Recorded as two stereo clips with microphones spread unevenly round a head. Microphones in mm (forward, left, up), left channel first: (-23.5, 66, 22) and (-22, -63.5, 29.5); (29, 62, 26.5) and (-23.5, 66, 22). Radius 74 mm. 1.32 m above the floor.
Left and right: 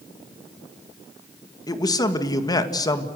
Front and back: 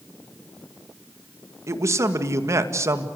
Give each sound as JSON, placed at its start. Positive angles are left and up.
{"t": 1.7, "sound": "a man speaking", "azimuth_deg": 150, "distance_m": 1.9}